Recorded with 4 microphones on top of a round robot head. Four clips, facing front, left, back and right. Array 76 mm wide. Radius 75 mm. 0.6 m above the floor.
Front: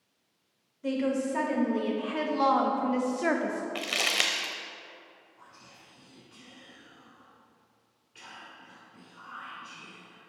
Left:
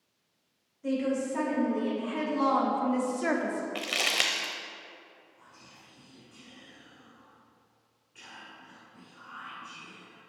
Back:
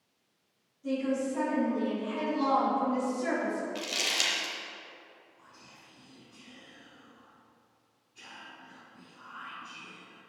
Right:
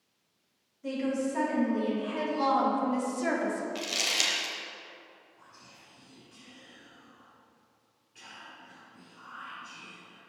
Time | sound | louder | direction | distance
0.8 | a woman speaking | left 1 dB, front 2 dB | 10° left | 2.5 m
3.8 | crumpling | left 2 dB, front 4 dB | 40° left | 0.6 m
5.4 | whispering | even, front 2 dB | 20° left | 3 m